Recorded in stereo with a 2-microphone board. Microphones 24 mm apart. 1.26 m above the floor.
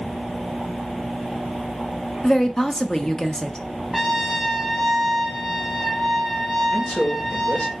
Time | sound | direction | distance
2.2 | a woman speaking | 25° left (ahead or behind) | 0.7 m
3.9 | a trumpet | 5° right (ahead or behind) | 0.9 m
6.7 | a man speaking | 75° left (ahead or behind) | 1.7 m